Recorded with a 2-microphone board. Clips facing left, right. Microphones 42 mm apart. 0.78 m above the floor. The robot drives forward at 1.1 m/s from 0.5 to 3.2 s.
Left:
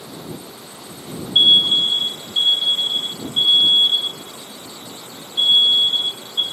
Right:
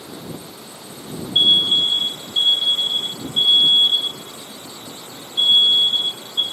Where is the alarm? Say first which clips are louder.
Left 2 dB; 20° left (ahead or behind), 0.6 m; by 6.4 s 5° left (ahead or behind), 2 m.